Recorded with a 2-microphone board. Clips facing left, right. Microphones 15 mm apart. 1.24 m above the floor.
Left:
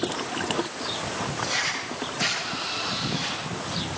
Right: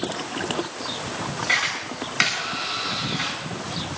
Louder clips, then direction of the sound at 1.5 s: Right 7 dB; 75° right (ahead or behind).